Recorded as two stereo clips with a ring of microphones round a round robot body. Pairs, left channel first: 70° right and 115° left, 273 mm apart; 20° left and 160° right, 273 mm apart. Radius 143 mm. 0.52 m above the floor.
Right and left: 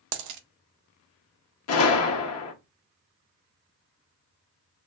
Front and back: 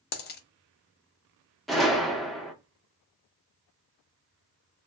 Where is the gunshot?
65° right, 0.7 m.